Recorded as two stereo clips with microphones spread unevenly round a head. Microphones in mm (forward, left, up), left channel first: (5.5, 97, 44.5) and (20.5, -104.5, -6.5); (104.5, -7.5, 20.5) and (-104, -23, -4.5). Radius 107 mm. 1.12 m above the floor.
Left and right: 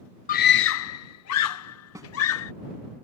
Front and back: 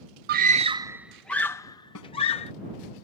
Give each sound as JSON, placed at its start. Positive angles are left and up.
{"t": 0.3, "sound": "a scream", "azimuth_deg": 150}
{"t": 1.9, "sound": "a snare drum", "azimuth_deg": -10}